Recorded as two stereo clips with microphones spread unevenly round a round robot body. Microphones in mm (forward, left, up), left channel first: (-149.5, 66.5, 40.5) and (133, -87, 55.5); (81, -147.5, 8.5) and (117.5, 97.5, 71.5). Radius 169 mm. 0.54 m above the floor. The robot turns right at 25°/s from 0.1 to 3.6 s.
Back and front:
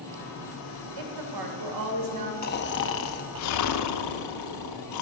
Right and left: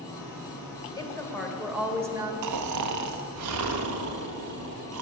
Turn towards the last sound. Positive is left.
turn(degrees=120)